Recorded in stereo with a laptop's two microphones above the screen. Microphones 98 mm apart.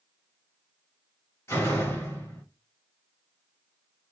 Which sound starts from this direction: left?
A door slam, at 1.5 s.